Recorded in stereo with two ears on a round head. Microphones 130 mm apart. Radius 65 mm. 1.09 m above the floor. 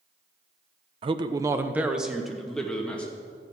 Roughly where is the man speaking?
Right.